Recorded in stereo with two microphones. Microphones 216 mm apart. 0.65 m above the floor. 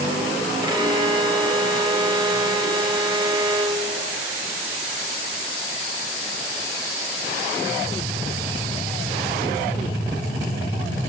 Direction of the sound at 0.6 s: 20° right (ahead or behind).